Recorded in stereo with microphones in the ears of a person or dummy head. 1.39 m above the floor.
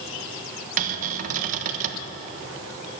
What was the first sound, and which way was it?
A cupboard door, 50° right (ahead or behind).